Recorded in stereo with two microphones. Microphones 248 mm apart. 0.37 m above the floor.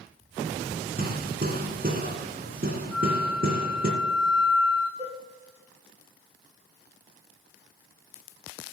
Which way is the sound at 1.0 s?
35° right (ahead or behind).